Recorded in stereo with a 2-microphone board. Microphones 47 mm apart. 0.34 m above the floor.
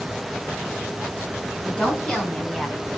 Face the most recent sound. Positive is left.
turn(degrees=20)  # may be behind; listen again after turning